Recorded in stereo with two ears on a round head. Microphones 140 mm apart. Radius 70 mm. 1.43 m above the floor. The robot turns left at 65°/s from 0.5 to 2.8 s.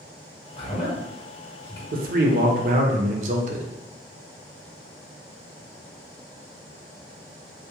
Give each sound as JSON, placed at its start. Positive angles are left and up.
{"t": 0.6, "sound": "a man speaking", "side_deg": 30, "distance_m": 0.9}
{"t": 1.9, "sound": "a man speaking", "azimuth_deg": -65, "distance_m": 0.5}